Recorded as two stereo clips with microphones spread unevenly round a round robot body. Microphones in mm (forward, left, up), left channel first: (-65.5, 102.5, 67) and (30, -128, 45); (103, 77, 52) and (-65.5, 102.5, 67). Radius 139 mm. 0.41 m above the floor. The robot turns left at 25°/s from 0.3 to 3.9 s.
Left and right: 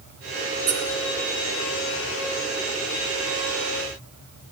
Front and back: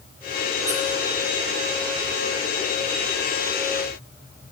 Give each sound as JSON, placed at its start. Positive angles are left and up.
{"t": 0.7, "sound": "a squeak", "azimuth_deg": -125, "distance_m": 4.0}